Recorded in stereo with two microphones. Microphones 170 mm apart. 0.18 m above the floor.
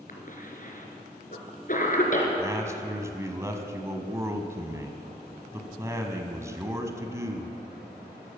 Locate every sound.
0.1 s a cough: 55° left (ahead or behind), 3 m
2.4 s a man speaking: 20° right (ahead or behind), 1.3 m